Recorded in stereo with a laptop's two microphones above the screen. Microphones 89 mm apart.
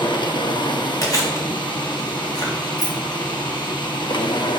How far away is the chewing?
About 2.0 m.